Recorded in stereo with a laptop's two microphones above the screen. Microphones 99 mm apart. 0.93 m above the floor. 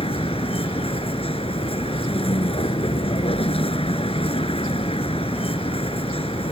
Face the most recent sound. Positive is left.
turn(degrees=75)  # may be behind; listen again after turning